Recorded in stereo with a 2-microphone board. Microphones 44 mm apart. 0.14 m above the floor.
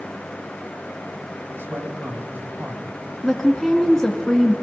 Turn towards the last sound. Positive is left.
turn(degrees=10)  # may be behind; listen again after turning